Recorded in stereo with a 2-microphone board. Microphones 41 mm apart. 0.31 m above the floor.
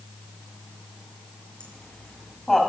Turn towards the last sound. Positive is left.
turn(degrees=10)  # may be behind; listen again after turning